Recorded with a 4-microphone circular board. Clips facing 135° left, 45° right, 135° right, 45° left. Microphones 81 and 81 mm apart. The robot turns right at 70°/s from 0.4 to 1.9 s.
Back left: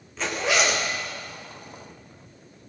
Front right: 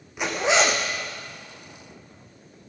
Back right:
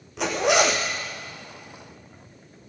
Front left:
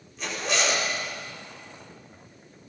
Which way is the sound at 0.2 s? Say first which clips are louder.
Front right 3 dB, back right 8 dB; 120° right.